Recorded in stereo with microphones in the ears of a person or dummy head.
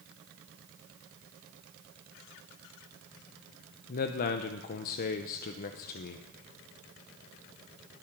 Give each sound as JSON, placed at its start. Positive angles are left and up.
{"t": 3.9, "sound": "a man speaking", "side_deg": 50, "distance_m": 0.9}